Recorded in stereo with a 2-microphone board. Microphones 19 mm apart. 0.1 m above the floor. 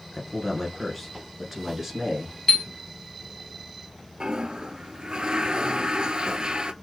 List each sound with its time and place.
0.1 s a man speaking: 15° left (ahead or behind), 1.5 m; by 2.4 s 25° right (ahead or behind), 1.6 m
2.5 s a chime: 25° left (ahead or behind), 0.5 m
4.2 s a toilet flushing: 50° right (ahead or behind), 0.6 m